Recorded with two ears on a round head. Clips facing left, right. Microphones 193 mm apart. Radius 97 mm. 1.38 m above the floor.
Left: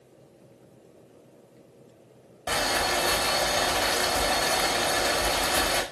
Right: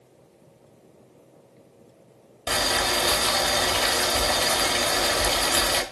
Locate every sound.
2.5 s boiling: 45° right (ahead or behind), 1.1 m